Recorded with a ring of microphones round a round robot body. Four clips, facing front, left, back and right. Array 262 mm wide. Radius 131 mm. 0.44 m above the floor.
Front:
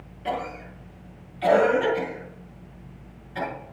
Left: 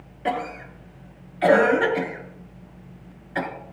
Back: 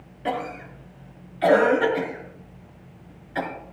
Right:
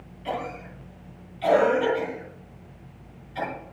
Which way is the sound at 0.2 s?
115° left.